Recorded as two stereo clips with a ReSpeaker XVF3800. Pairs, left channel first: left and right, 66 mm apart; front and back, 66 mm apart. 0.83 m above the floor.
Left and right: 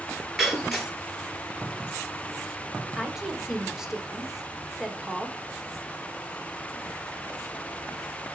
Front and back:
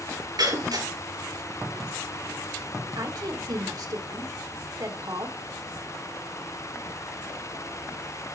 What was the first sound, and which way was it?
Breaking glass, 175° right.